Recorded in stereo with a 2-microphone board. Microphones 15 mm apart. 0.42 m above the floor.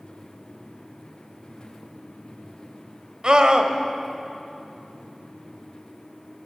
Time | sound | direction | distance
1.5 | breathing | 5° right (ahead or behind) | 8.5 m
3.2 | a scream | 50° right (ahead or behind) | 2 m